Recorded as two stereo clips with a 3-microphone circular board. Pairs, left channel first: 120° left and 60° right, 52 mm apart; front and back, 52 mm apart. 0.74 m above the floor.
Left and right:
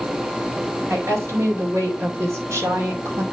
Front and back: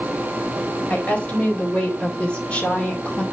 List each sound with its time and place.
0.9 s a woman speaking: 65° right, 4 m